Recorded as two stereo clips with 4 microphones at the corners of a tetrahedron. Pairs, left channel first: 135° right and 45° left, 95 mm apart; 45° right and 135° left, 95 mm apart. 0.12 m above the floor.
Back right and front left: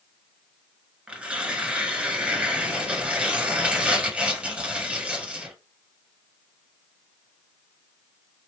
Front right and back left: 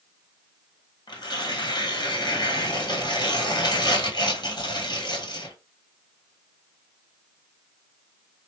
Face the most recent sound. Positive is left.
turn(degrees=-30)